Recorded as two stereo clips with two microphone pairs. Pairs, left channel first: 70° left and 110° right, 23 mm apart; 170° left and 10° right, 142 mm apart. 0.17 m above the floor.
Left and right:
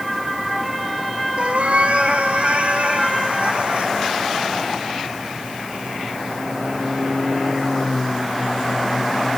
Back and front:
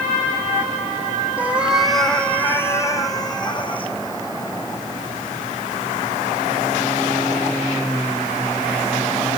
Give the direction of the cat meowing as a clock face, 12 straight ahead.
3 o'clock.